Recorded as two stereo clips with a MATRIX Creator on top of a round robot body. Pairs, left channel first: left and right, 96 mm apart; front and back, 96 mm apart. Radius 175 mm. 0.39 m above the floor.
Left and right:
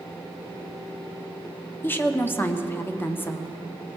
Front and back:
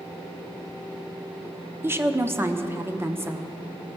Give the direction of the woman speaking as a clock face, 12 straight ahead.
7 o'clock.